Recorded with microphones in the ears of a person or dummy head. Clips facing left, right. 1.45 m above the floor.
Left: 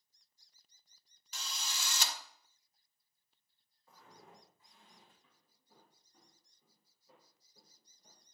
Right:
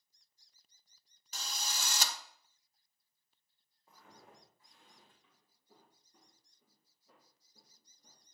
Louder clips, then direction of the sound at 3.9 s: Left 1 dB; 20° right (ahead or behind).